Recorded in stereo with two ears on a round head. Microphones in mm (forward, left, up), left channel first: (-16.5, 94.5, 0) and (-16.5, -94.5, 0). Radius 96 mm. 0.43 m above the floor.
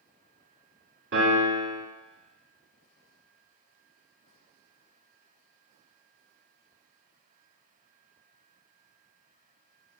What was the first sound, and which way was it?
A piano, 60° right (ahead or behind).